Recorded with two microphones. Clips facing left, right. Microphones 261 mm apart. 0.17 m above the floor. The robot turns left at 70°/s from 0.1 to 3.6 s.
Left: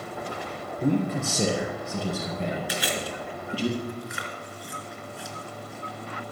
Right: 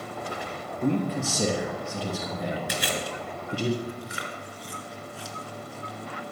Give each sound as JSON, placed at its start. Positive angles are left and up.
{"t": 0.8, "sound": "a man speaking", "azimuth_deg": 145, "distance_m": 3.5}
{"t": 2.7, "sound": "chewing", "side_deg": -50, "distance_m": 2.5}